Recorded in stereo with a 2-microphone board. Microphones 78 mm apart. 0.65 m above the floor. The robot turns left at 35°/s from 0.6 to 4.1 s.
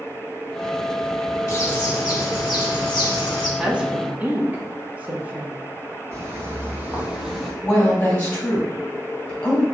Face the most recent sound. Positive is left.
turn(degrees=20)  # may be behind; listen again after turning